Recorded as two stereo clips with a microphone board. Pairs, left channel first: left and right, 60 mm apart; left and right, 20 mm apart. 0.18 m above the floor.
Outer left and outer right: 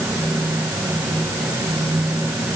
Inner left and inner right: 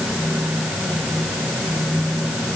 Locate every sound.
Only background noise.